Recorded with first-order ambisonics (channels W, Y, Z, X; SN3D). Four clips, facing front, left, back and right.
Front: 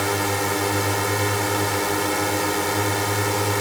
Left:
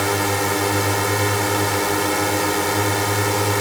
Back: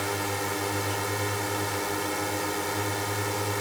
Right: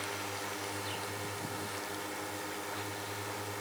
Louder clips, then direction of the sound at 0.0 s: Left 18 dB, front 7 dB; 65° left.